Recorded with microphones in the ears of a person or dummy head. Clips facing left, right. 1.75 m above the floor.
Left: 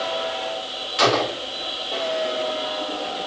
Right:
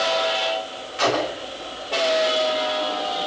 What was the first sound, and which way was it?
A gunshot, 55° left (ahead or behind).